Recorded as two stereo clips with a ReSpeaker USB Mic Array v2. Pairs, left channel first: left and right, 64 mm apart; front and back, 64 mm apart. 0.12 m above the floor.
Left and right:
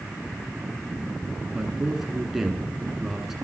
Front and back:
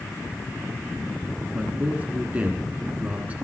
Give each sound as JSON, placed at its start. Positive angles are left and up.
{"t": 1.5, "sound": "a man speaking", "azimuth_deg": -170, "distance_m": 1.1}